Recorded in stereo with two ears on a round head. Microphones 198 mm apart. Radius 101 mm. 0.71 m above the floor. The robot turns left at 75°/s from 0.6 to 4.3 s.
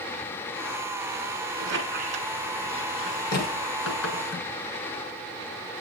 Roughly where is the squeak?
Right.